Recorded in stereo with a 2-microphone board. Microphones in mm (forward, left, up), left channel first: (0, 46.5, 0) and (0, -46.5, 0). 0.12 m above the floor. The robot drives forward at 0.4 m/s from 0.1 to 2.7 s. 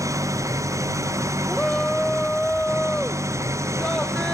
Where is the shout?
10° left (ahead or behind).